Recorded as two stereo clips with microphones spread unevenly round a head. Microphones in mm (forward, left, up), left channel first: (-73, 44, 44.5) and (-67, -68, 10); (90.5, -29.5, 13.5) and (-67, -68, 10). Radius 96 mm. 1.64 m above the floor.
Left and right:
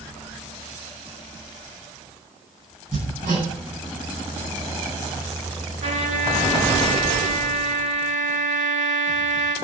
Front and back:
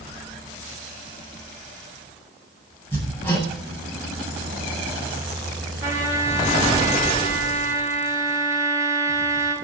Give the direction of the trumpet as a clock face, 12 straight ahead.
3 o'clock.